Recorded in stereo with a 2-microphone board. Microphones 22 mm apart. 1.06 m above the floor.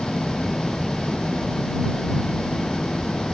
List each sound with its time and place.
0.0 s an engine running: 65° left (ahead or behind)